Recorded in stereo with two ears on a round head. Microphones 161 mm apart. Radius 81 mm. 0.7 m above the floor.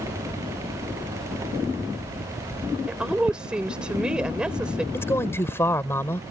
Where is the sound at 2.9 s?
5° right (ahead or behind).